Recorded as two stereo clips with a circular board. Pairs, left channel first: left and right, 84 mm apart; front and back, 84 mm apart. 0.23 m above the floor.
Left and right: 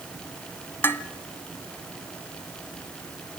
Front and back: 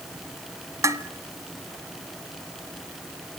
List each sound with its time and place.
0.8 s dishes clattering: 145° left, 1.3 m